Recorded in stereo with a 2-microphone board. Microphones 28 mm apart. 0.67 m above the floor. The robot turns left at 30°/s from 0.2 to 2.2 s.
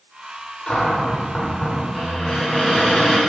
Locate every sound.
0.7 s a cupboard door: 55° left, 2.5 m; by 3.2 s 10° left, 2.5 m